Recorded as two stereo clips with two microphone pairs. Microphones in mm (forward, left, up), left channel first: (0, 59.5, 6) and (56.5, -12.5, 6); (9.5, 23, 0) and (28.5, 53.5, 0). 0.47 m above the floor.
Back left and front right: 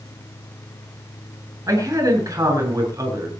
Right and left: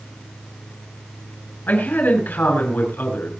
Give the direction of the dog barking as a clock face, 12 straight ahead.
I don't hear a dog barking.